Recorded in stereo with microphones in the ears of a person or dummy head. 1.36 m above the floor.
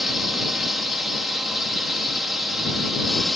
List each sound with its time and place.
0.0 s a drone: 5° right (ahead or behind)